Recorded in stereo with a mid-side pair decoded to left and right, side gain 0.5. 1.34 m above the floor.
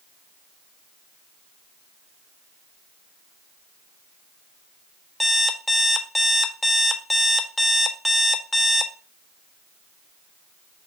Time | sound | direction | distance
5.2 | an alarm clock | 10° left | 1.3 m